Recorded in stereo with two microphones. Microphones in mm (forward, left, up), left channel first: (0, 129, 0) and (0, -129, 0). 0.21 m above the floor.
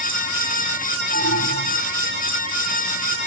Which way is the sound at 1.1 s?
80° right.